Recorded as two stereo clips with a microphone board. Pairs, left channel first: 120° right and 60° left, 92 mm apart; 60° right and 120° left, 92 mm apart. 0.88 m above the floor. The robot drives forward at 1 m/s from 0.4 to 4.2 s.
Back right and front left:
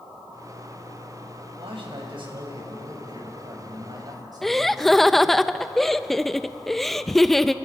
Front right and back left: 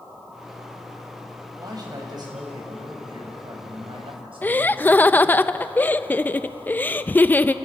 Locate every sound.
1.6 s a man speaking: 75° left, 6 m; by 5.4 s 100° left, 6 m
4.4 s laughter: 40° right, 0.6 m